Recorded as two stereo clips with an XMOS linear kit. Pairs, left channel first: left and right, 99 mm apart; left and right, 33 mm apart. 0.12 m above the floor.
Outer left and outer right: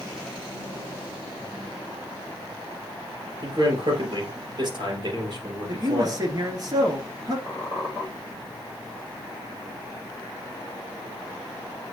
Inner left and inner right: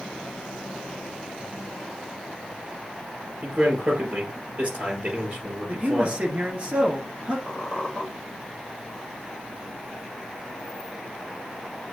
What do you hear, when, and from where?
3.4 s a man speaking: 50° right (ahead or behind), 2.5 m
5.7 s a man speaking: 40° right (ahead or behind), 1.5 m
7.5 s a squeak: 15° right (ahead or behind), 1.5 m